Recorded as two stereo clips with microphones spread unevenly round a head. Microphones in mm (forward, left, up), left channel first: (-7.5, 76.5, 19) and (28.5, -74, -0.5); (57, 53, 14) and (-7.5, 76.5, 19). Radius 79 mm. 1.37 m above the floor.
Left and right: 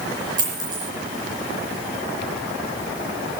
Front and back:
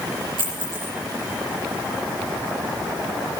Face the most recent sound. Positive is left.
turn(degrees=-145)